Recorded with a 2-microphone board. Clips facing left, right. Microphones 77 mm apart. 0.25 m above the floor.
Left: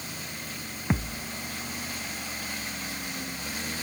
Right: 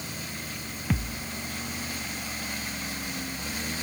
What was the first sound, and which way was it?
A thud, 25° left (ahead or behind).